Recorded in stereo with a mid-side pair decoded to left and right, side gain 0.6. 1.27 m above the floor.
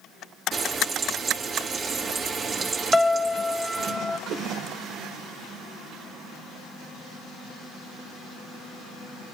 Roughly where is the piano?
Ahead.